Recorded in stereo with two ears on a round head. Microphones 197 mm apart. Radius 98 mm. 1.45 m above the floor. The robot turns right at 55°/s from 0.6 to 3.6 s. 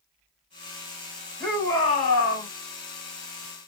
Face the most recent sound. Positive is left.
turn(degrees=125)